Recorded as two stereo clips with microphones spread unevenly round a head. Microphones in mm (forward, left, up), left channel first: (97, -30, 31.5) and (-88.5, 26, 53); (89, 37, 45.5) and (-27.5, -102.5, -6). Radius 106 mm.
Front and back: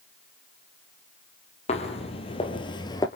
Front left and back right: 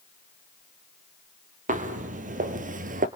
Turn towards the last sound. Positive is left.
turn(degrees=-90)